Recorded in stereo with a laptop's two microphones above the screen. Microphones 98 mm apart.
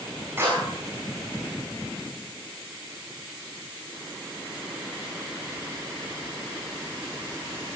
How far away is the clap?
About 7.5 m.